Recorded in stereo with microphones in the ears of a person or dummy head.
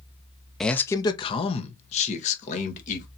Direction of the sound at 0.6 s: 5° left (ahead or behind).